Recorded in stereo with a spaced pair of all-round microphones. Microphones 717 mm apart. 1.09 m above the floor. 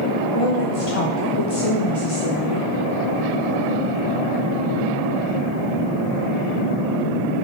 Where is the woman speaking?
50° left (ahead or behind), 0.8 m.